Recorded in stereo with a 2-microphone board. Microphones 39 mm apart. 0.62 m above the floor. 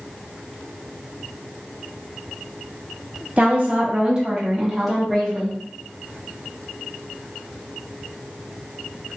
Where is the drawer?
No drawer in this recording.